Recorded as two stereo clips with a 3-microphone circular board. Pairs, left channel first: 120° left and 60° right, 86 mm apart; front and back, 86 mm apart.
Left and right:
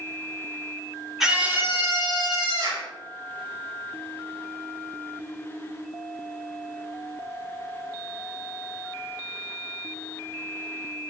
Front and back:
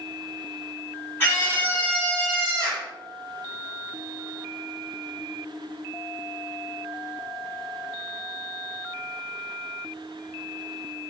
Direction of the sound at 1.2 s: 20° left.